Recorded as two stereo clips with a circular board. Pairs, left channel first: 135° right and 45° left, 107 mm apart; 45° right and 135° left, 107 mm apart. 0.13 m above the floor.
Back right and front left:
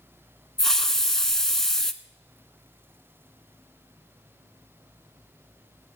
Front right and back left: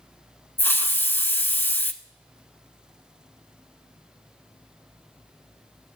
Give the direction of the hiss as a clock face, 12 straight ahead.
2 o'clock.